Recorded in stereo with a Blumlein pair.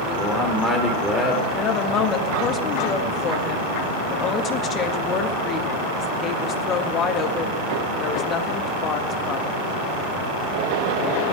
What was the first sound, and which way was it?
A man speaking, straight ahead.